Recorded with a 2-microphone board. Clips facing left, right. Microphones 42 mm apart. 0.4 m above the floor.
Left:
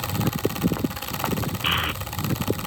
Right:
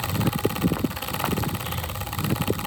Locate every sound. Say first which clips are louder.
1.6 s a child speaking: left 8 dB; 80° left